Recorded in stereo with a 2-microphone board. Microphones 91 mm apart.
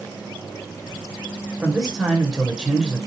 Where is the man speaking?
5° right (ahead or behind), 1.9 m.